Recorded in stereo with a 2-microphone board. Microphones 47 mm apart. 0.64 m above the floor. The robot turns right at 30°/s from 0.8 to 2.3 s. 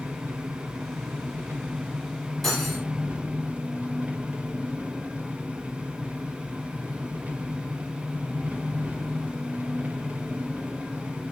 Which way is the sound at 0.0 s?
75° right.